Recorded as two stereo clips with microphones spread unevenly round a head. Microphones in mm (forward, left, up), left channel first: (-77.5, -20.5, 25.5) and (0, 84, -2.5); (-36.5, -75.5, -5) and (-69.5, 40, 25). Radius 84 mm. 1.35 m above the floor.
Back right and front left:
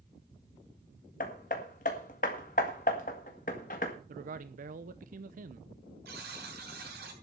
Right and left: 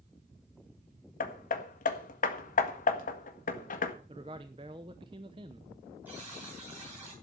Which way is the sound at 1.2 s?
80° right.